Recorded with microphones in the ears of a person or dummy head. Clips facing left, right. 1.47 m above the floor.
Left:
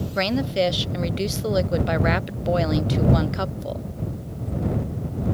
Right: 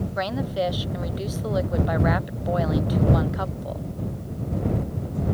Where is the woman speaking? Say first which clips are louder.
Left 5 dB; 30° left (ahead or behind).